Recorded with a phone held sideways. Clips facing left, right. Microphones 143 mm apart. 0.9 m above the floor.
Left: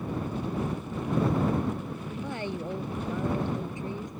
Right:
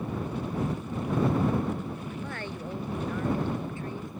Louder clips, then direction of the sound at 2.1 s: Left 3 dB; 20° left (ahead or behind).